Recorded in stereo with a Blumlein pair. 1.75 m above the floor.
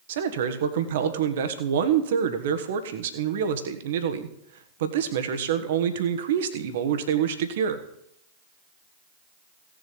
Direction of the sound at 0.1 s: 60° right.